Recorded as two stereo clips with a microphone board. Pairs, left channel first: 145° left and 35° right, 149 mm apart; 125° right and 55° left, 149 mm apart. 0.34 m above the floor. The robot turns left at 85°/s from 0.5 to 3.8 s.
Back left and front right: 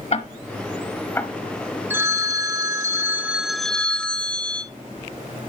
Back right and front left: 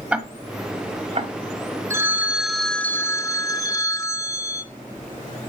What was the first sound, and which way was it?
Ticking, 135° left.